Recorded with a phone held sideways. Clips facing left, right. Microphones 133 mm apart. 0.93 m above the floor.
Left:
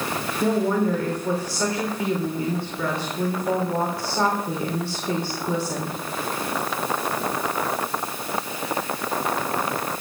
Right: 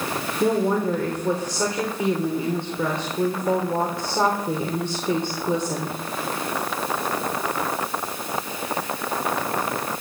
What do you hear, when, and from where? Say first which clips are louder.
0.4 s a woman speaking: even; 20° right (ahead or behind), 3 m